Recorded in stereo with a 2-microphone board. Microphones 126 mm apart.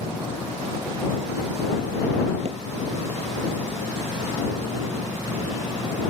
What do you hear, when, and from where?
2.5 s hammering: 55° right (ahead or behind)